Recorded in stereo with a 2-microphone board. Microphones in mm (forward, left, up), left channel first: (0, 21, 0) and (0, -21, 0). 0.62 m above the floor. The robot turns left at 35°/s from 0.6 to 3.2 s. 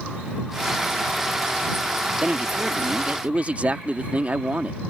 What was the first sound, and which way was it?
A man speaking, 50° right.